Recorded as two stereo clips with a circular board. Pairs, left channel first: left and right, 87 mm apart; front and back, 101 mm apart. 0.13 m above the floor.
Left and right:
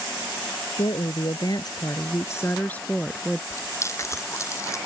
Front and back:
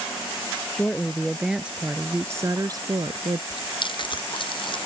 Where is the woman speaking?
80° left; by 3.4 s straight behind.